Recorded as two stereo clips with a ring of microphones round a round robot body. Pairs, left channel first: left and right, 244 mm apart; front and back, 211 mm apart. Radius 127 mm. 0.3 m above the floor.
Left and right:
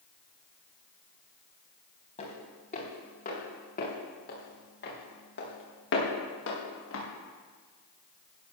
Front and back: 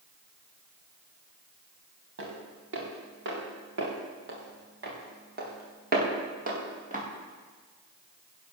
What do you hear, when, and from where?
2.2 s footsteps: 155° left, 7.5 m; by 7.0 s 125° left, 6.5 m